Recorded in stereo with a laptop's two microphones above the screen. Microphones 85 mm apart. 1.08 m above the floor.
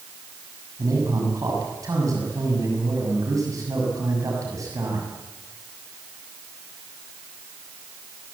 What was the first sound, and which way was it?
A man speaking, 45° right (ahead or behind).